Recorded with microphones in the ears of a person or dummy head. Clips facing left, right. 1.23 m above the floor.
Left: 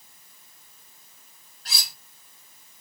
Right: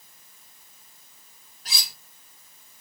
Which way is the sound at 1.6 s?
5° right (ahead or behind).